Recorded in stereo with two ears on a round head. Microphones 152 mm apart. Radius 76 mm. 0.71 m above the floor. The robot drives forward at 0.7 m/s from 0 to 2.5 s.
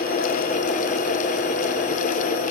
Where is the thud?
I don't hear a thud.